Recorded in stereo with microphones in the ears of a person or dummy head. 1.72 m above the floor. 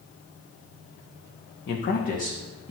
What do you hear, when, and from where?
1.7 s a man speaking: 55° left (ahead or behind), 1.3 m; by 2.7 s 35° left (ahead or behind), 2 m